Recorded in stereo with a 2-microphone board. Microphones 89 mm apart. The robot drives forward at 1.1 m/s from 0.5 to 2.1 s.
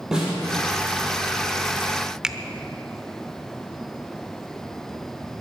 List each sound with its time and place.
0.1 s a snare drum: 5° right (ahead or behind), 7 m
2.2 s a finger snap: 10° right (ahead or behind), 0.7 m